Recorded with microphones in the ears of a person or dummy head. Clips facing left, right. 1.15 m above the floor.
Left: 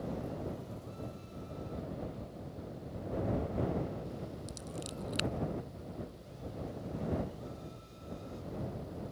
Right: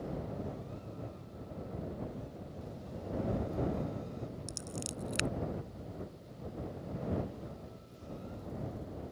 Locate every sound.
4.5 s scissors: 30° right (ahead or behind)